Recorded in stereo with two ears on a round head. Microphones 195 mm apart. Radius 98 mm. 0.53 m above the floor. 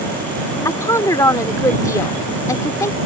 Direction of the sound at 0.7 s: 15° left (ahead or behind).